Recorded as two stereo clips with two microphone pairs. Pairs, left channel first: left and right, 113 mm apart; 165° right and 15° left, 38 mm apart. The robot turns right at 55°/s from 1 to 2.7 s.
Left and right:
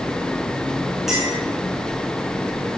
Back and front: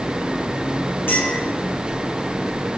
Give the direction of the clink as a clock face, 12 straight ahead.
6 o'clock.